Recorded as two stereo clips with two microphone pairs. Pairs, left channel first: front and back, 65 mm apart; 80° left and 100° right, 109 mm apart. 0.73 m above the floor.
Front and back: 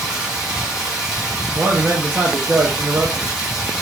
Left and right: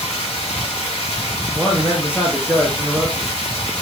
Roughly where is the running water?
Left.